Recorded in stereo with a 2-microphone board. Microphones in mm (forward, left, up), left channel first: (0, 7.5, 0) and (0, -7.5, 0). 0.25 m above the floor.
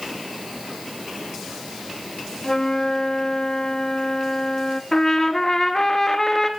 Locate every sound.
2.4 s a flute: 40° left (ahead or behind), 1.0 m
4.9 s a trumpet: 30° left (ahead or behind), 2 m